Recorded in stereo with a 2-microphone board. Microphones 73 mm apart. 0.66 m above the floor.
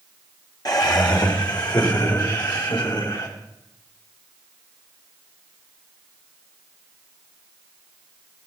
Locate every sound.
0.7 s laughter: 60° left (ahead or behind), 1.7 m; by 3.3 s 80° left, 4.5 m